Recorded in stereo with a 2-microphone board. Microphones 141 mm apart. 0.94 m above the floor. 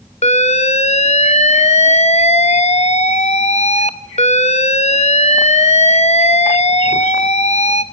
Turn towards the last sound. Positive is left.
turn(degrees=50)  # may be behind; listen again after turning